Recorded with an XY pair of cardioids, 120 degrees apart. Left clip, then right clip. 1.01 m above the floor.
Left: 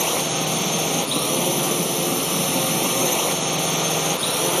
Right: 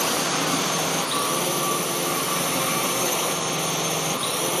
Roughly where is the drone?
Ahead.